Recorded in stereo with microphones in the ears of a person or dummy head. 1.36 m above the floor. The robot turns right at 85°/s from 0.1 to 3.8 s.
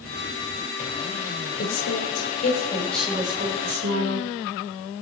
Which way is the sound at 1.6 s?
60° left.